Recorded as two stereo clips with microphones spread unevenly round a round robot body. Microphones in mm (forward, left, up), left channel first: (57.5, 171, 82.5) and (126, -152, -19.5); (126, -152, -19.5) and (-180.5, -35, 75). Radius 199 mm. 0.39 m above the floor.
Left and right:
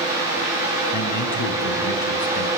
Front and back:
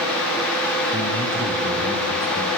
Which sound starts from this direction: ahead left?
A man speaking, at 0.9 s.